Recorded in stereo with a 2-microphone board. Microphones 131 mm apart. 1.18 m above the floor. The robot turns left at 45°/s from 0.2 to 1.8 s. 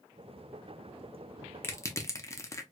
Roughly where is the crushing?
Centre.